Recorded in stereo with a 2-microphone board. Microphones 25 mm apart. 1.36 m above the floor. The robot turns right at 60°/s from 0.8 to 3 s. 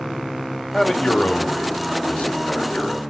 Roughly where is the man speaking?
Ahead left.